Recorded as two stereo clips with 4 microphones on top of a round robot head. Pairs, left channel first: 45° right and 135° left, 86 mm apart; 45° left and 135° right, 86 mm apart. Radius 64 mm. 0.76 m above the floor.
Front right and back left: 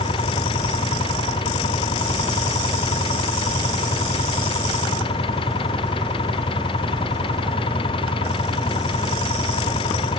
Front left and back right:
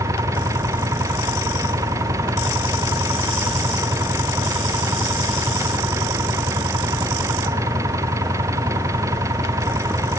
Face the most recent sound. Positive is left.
turn(degrees=-75)